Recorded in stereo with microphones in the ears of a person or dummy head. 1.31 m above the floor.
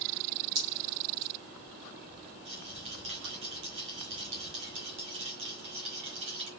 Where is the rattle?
30° right (ahead or behind), 0.9 m.